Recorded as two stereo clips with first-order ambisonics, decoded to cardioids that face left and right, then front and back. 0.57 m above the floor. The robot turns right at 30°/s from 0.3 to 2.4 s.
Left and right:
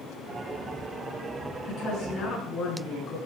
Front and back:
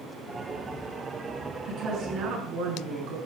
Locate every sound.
1.7 s a woman speaking: 125° left, 7 m; by 3.2 s 150° left, 7 m